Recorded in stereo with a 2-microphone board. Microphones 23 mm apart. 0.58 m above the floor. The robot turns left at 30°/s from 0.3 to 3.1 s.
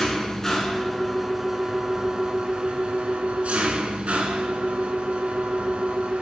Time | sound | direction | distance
0.0 | an engine running | 20° left | 1.4 m